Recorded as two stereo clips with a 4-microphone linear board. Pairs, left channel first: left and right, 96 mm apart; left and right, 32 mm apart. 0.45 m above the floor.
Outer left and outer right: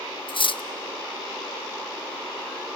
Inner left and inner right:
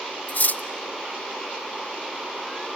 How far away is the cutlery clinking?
About 0.5 m.